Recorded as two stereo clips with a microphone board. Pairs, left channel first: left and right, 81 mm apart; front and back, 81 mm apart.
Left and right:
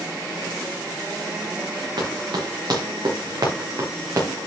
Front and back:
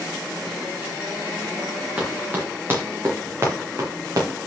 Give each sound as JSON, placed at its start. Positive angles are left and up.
{"t": 2.0, "sound": "running footsteps", "azimuth_deg": -115, "distance_m": 5.0}